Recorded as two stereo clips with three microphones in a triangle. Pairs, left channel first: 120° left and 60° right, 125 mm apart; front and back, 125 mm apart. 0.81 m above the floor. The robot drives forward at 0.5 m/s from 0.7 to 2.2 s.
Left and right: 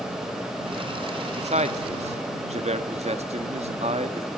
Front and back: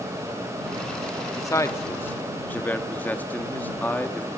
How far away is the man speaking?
About 1.7 m.